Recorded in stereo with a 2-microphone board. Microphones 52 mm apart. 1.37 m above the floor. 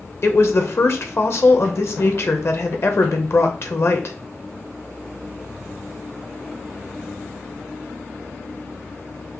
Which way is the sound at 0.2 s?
50° left (ahead or behind).